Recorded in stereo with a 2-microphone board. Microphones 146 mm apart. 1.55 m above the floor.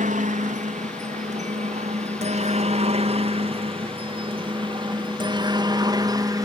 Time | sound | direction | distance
0.0 | a helicopter | 60° right (ahead or behind) | ?